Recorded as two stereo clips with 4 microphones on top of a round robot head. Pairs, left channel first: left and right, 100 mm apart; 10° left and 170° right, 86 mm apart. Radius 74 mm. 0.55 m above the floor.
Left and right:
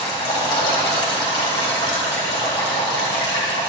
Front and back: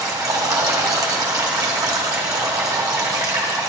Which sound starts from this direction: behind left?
Running water, at 0.0 s.